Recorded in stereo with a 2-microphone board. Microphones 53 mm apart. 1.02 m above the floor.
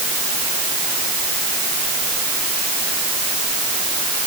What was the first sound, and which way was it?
Only background noise.